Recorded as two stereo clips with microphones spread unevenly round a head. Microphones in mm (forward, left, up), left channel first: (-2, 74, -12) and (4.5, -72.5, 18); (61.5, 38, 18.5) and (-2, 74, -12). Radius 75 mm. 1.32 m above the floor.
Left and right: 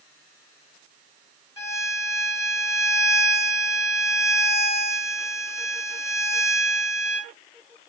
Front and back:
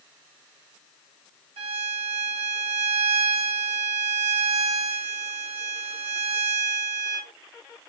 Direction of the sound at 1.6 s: 165° left.